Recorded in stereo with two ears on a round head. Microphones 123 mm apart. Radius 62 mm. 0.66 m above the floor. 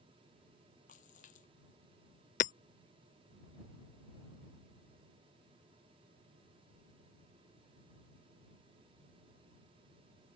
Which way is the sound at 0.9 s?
65° left (ahead or behind).